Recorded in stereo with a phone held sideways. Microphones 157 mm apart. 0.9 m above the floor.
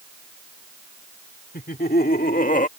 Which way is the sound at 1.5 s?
80° left.